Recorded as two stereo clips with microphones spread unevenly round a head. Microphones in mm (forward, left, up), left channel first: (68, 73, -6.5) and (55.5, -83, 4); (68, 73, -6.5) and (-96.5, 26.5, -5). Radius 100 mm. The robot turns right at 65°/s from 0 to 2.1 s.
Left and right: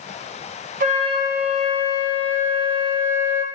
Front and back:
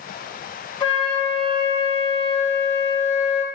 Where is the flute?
55° right, 0.8 m; by 3.4 s 30° left, 0.8 m.